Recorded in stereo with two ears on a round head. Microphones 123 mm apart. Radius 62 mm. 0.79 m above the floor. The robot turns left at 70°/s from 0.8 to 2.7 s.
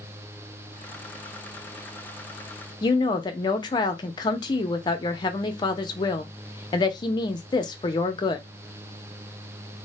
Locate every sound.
2.8 s a woman speaking: 30° left (ahead or behind), 0.5 m